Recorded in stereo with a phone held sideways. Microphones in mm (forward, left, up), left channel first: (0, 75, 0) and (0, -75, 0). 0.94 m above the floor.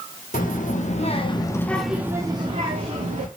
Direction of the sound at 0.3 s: 65° left (ahead or behind).